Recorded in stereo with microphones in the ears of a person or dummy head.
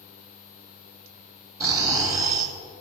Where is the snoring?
15° right (ahead or behind), 2.5 m.